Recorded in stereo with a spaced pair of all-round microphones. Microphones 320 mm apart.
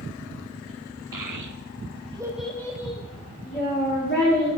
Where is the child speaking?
80° right, 0.9 m; by 4.5 s 30° left (ahead or behind), 2.5 m.